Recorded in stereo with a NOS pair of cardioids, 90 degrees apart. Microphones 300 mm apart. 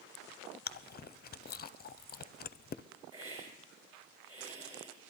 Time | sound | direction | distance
0.7 | chewing | 30° left | 0.6 m
3.1 | a hiss | 20° right | 5 m